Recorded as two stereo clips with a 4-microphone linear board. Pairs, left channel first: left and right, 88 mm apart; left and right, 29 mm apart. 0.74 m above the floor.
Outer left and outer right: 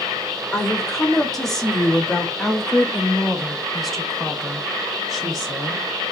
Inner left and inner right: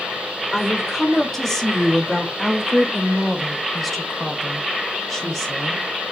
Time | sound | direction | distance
0.5 | a woman speaking | 5° left (ahead or behind) | 2.5 m